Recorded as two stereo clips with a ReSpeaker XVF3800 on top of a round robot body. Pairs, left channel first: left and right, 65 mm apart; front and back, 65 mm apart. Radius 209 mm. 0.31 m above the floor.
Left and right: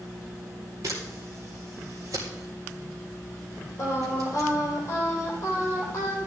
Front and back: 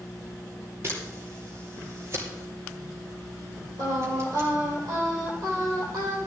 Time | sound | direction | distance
0.8 | a camera shutter | 130° right | 2.5 m
3.8 | singing | 145° left | 3 m